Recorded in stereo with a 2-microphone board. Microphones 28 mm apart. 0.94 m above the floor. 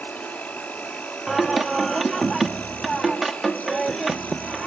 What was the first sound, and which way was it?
An insect, 75° left (ahead or behind).